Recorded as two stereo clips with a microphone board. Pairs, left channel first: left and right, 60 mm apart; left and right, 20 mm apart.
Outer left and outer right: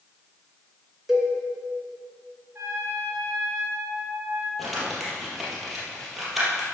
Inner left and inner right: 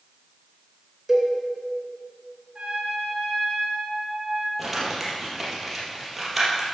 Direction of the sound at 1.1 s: 5° right (ahead or behind).